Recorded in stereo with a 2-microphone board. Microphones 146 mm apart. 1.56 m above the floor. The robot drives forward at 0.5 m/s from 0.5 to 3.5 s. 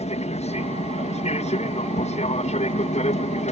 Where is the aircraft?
50° left (ahead or behind).